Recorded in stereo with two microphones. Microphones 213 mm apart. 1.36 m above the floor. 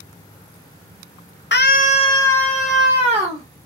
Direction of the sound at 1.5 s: 55° left (ahead or behind).